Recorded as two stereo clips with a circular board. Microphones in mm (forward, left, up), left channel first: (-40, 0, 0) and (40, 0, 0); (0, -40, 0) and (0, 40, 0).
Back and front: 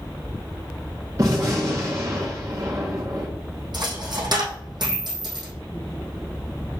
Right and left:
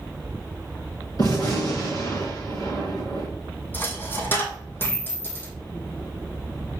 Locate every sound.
1.2 s a gunshot: 50° right, 3.5 m
3.7 s a dropped coin: 25° right, 2.5 m